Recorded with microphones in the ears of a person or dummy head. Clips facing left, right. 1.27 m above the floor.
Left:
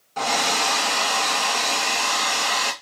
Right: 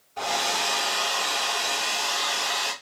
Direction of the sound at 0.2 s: 80° left.